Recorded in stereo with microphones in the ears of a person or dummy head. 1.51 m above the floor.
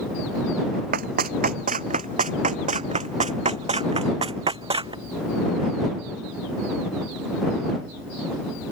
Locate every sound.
0.9 s running footsteps: 50° right (ahead or behind); by 5.0 s 30° right (ahead or behind)